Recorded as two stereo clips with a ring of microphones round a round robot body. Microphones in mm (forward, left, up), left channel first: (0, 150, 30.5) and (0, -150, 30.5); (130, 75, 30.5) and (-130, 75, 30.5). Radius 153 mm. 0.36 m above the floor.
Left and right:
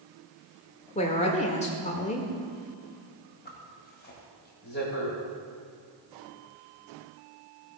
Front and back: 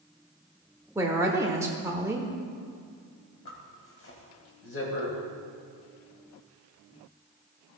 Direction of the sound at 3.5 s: 35° left.